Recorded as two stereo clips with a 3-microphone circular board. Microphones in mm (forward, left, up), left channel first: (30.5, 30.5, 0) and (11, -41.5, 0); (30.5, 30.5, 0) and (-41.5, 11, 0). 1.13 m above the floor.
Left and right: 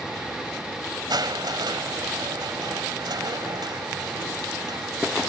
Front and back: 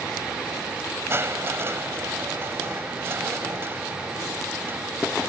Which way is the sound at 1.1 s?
110° right.